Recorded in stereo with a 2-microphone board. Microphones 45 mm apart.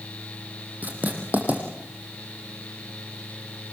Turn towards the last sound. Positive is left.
turn(degrees=-40)  # may be behind; listen again after turning